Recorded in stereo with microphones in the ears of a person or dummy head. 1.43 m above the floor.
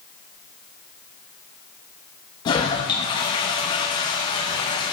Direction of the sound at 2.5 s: 25° left (ahead or behind).